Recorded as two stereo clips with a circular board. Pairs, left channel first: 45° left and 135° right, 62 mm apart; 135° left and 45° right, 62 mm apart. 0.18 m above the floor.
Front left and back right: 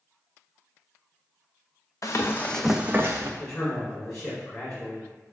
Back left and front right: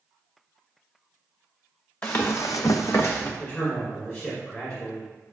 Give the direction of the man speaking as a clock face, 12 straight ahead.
8 o'clock.